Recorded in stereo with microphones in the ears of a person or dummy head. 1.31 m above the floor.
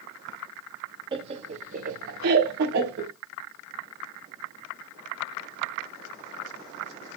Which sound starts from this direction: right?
Laughter, at 1.1 s.